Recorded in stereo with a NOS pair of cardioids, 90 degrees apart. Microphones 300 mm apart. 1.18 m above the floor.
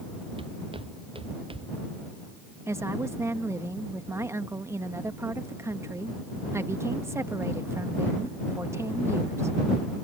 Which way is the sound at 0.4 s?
20° right.